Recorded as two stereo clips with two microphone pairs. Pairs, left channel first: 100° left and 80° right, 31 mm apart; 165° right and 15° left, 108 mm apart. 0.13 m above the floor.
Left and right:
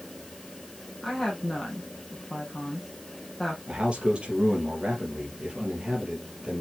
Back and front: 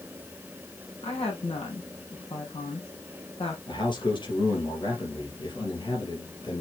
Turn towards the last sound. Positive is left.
turn(degrees=-130)